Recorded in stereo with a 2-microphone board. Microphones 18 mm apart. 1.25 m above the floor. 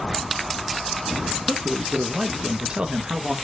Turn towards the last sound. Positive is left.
turn(degrees=-50)  # may be behind; listen again after turning